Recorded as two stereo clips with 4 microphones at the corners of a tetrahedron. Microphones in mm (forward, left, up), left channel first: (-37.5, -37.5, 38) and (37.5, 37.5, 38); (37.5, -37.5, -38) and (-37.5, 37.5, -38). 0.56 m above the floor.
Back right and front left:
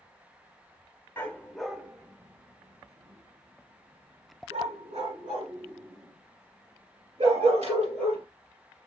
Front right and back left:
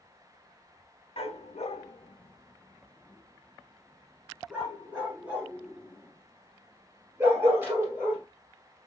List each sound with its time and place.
1.2 s a dog barking: 65° right, 0.7 m; by 8.2 s 65° left, 3 m